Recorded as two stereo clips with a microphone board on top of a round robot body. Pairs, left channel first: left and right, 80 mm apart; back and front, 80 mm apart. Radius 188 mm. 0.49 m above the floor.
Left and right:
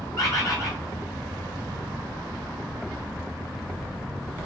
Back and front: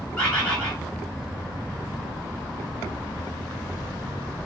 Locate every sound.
0.2 s a bird: 110° left, 2.0 m